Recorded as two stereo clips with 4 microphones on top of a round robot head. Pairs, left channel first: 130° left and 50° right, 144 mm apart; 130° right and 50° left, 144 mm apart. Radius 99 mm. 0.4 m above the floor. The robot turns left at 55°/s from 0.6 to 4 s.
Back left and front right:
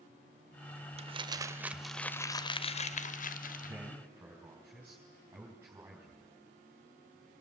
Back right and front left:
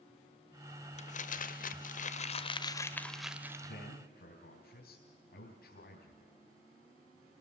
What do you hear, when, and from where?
1.0 s crumpling: 95° right, 1.0 m; by 3.8 s 115° left, 1.0 m
3.6 s a man speaking: 105° right, 4.5 m; by 6.3 s 125° right, 4.5 m